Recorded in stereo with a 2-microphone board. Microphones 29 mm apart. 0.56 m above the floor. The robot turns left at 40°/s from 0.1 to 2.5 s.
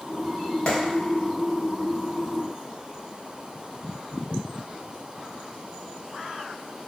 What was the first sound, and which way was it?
A clap, 45° left (ahead or behind).